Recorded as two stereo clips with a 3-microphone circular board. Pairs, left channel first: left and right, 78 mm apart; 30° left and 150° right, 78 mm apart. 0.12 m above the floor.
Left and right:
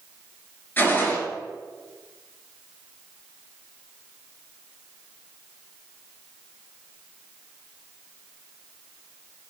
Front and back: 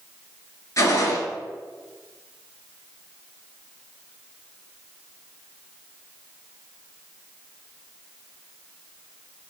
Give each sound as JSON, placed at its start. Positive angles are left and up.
{"t": 0.8, "sound": "a gunshot", "azimuth_deg": 35, "distance_m": 0.7}